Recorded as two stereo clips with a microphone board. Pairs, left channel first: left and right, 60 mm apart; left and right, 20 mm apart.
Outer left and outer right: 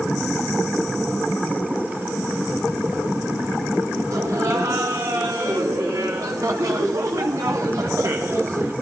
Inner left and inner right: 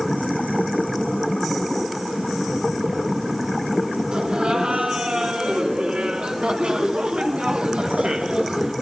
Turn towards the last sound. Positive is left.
turn(degrees=-50)  # may be behind; listen again after turning